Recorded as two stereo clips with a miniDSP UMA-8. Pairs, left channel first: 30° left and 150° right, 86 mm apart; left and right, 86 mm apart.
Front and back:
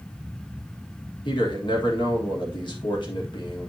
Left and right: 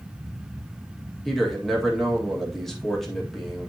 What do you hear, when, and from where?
1.2 s a man speaking: 5° left, 1.6 m